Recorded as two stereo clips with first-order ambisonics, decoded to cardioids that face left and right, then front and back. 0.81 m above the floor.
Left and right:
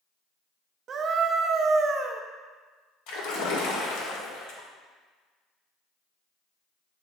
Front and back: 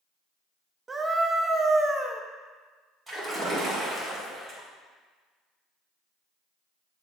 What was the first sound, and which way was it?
A scream, 115° right.